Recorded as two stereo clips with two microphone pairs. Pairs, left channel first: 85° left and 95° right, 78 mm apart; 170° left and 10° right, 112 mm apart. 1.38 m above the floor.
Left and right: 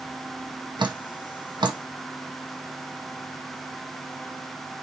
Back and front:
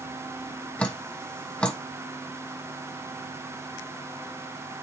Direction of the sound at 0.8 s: 115° right.